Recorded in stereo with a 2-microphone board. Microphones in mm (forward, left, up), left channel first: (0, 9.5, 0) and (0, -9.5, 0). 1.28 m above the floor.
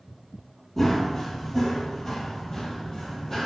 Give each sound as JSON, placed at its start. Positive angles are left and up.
{"t": 0.8, "sound": "running footsteps", "side_deg": 15, "distance_m": 1.4}